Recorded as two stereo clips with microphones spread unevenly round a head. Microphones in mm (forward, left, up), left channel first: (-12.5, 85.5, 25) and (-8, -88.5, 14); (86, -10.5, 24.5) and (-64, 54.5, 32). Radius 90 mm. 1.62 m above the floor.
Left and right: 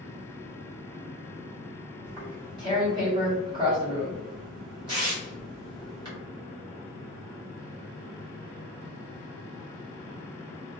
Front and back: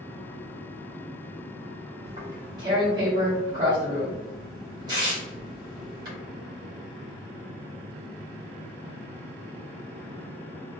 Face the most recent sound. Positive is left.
turn(degrees=-150)